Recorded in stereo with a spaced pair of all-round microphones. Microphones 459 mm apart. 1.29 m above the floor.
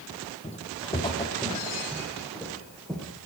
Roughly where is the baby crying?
I don't hear a baby crying.